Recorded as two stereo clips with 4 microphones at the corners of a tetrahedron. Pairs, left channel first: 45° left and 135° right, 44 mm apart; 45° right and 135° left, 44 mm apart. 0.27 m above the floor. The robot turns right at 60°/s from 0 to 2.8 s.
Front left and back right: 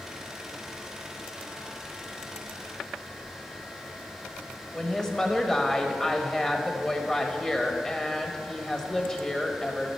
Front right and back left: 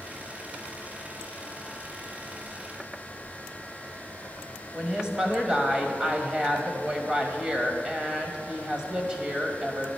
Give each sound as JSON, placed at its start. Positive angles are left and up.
{"t": 4.7, "sound": "a woman speaking", "azimuth_deg": 95, "distance_m": 1.0}